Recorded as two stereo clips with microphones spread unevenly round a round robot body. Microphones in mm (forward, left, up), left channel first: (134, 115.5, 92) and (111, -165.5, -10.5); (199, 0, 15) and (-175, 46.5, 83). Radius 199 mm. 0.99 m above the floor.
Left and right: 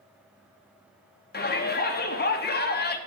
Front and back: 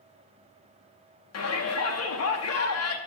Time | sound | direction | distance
1.3 | a shout | 15° left | 1.1 m